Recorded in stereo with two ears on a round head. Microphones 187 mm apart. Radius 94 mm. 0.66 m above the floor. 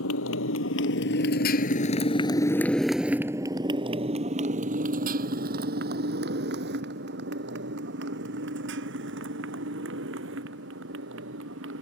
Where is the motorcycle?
70° left (ahead or behind); by 11.8 s 65° right (ahead or behind).